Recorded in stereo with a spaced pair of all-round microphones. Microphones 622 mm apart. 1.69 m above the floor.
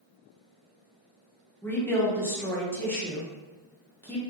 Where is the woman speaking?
5° left (ahead or behind), 1.4 m.